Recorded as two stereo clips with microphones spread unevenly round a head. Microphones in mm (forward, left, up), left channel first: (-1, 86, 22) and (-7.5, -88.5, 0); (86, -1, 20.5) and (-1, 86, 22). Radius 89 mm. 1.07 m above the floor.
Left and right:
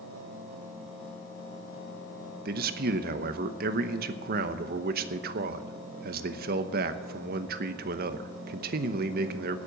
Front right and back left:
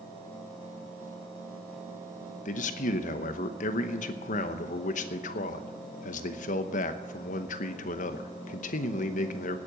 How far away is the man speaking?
About 0.9 m.